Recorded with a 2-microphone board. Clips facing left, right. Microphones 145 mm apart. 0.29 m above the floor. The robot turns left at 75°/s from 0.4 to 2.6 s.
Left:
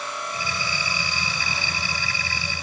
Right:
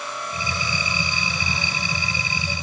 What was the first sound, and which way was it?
Only background noise.